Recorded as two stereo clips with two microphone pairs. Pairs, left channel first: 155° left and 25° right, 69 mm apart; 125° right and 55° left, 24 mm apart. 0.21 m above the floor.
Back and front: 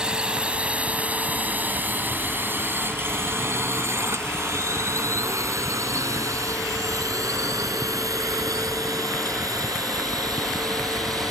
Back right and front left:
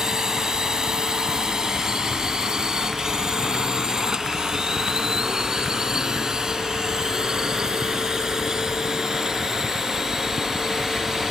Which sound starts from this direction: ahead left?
A drone, at 0.0 s.